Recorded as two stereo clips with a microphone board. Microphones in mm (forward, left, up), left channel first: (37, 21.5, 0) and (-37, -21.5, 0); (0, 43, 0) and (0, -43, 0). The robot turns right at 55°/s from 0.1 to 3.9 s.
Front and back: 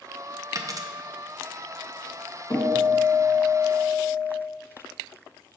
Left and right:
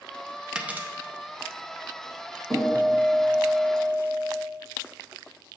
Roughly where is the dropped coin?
Behind.